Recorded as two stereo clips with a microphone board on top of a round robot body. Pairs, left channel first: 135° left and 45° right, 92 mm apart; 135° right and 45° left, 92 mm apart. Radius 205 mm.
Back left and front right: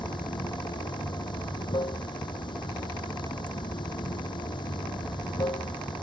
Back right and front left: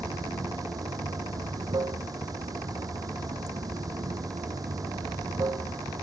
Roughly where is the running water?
Left.